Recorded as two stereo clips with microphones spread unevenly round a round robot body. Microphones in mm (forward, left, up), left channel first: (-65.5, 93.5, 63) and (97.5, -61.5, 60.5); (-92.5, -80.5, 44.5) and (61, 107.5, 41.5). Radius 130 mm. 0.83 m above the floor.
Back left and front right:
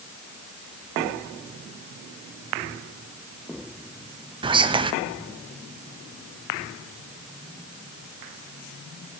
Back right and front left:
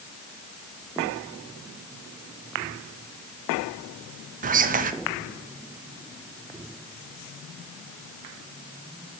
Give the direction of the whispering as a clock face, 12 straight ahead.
12 o'clock.